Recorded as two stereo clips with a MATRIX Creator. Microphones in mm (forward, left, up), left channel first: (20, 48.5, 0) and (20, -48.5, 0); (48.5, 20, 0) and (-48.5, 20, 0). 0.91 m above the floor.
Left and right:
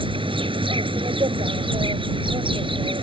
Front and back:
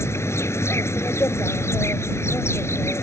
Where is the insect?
65° right.